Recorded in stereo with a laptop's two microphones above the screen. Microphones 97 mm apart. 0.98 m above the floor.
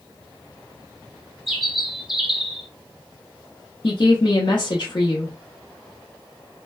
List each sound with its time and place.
1.5 s a bird: 5° right (ahead or behind), 1.0 m
3.8 s a woman speaking: 45° left (ahead or behind), 0.9 m